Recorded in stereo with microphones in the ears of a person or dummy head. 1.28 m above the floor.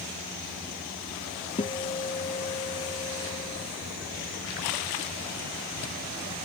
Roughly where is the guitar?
Left.